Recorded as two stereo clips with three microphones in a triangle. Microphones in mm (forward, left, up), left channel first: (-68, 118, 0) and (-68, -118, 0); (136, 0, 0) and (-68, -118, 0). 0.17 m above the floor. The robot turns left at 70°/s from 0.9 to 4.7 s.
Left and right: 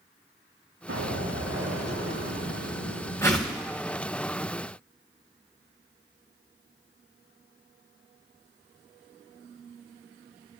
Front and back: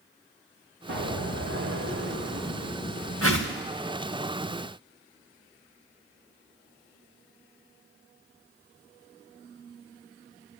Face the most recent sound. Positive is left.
turn(degrees=-90)